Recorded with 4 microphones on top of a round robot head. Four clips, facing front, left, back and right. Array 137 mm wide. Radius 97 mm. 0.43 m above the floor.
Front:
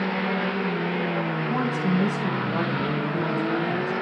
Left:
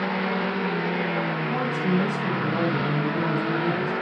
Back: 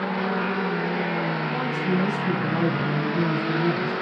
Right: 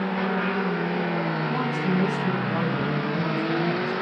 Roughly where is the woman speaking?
Ahead left.